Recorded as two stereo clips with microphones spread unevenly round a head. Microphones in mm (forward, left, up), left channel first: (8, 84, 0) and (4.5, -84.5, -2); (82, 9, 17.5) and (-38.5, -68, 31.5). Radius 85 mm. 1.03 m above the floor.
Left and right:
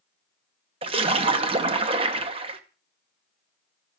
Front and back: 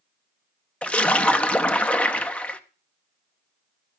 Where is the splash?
40° right, 0.8 m.